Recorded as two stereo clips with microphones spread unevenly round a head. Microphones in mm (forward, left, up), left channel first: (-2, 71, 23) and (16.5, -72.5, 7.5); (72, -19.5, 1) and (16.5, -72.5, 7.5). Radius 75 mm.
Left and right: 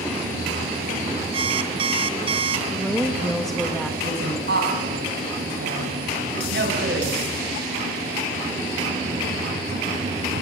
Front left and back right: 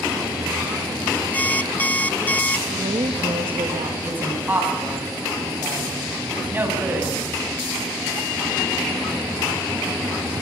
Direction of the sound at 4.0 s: 70° right.